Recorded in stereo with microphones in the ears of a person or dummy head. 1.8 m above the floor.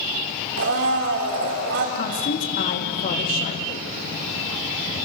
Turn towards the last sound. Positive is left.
turn(degrees=55)  # may be behind; listen again after turning